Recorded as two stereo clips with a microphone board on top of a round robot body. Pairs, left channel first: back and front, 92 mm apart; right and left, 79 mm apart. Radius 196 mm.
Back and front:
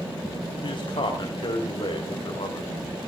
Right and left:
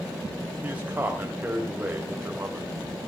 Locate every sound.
0.6 s a man speaking: 155° left, 3.5 m